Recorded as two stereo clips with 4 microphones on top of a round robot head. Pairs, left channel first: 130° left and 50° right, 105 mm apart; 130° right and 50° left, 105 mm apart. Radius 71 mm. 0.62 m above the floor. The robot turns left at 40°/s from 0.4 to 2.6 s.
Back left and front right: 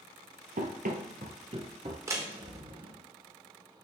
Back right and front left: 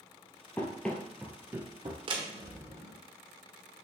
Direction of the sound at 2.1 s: 10° left.